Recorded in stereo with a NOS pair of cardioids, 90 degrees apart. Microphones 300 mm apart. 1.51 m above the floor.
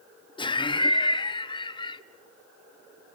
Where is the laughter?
15° left, 1.3 m.